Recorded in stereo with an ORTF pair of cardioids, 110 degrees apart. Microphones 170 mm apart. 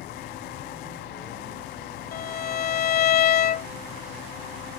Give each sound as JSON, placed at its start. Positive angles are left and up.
{"t": 0.0, "sound": "an engine running", "azimuth_deg": 65}
{"t": 2.1, "sound": "a violin", "azimuth_deg": 60}